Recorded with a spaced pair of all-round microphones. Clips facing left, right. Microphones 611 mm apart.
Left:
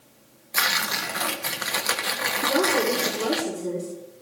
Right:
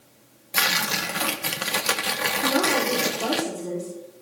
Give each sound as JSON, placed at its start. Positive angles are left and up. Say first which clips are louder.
{"t": 0.5, "sound": "tearing paper", "louder": "right 3 dB", "side_deg": -50, "distance_m": 1.0}
{"t": 2.4, "sound": "a woman speaking", "louder": "left 1 dB", "side_deg": -10, "distance_m": 5.0}